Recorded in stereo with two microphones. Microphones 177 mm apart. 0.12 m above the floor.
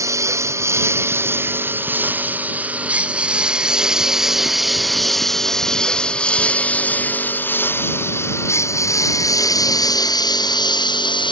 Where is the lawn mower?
15° right (ahead or behind); by 11.3 s 25° left (ahead or behind).